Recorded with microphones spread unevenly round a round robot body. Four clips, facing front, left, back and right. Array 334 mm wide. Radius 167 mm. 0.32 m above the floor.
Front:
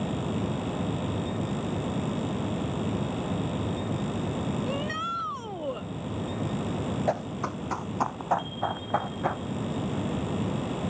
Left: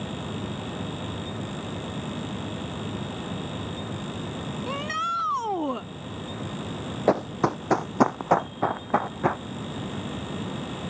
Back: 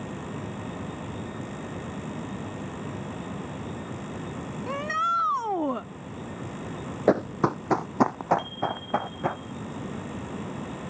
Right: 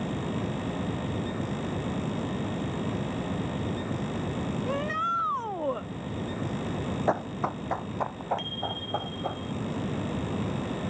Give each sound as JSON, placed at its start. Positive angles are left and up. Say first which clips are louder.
{"t": 4.7, "sound": "a shout", "louder": "left 1 dB, back 3 dB", "azimuth_deg": 150}
{"t": 7.1, "sound": "running footsteps", "louder": "left 7 dB, back 12 dB", "azimuth_deg": 155}
{"t": 8.4, "sound": "a bicycle bell", "louder": "left 7 dB, back 1 dB", "azimuth_deg": -95}